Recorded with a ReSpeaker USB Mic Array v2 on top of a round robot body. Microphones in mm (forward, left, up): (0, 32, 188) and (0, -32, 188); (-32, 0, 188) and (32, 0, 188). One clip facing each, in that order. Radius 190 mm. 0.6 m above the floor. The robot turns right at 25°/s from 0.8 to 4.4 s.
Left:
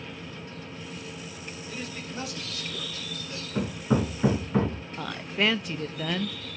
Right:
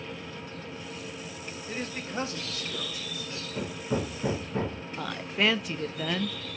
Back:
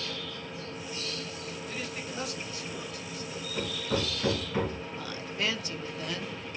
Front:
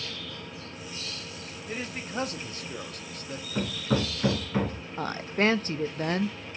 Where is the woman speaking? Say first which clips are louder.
Even, front 10 dB; straight ahead, 1.0 m.